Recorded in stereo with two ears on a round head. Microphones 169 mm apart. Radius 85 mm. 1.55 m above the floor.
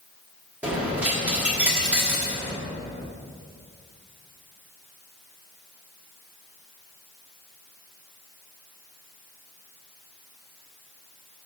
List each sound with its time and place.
0.6 s a dropped coin: 5° right (ahead or behind), 1.1 m